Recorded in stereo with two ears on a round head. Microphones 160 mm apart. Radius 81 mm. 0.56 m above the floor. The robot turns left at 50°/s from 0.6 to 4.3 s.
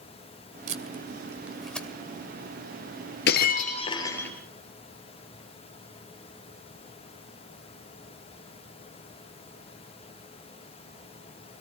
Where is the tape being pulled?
45° right (ahead or behind), 1.9 m; by 1.9 s 10° left (ahead or behind), 1.9 m.